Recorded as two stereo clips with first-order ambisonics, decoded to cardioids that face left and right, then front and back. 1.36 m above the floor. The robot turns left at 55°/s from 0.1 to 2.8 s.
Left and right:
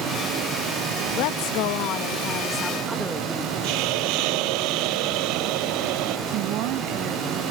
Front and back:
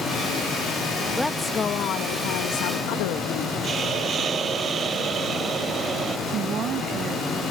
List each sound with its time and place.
1.1 s a woman speaking: 90° left; by 3.5 s straight ahead
3.6 s a hiss: 115° right
6.3 s a woman speaking: 125° right